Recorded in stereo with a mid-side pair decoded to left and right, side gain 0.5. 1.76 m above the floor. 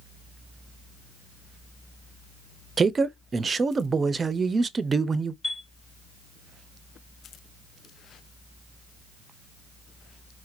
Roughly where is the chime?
Ahead.